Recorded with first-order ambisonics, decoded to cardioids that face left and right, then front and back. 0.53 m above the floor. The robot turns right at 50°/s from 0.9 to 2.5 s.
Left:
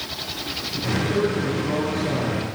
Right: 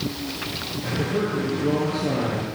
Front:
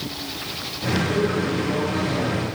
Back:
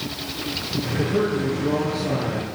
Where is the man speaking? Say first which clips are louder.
Left 2 dB, even; 160° right, 9 m; by 2.5 s 85° right, 9 m.